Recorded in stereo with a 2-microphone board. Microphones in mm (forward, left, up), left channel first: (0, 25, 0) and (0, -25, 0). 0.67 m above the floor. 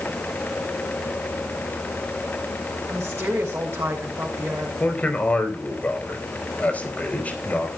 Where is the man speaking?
30° left (ahead or behind), 4 m.